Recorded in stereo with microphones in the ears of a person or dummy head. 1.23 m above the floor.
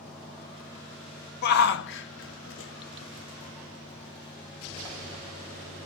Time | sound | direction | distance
1.4 | a shout | 55° left (ahead or behind) | 1.1 m